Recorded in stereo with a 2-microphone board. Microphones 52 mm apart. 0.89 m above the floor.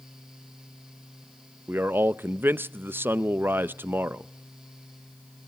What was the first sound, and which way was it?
A man speaking, 45° right (ahead or behind).